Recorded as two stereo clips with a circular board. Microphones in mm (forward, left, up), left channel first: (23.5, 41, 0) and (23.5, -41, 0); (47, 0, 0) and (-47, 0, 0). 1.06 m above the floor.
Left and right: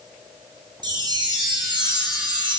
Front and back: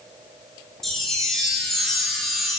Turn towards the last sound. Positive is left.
turn(degrees=-90)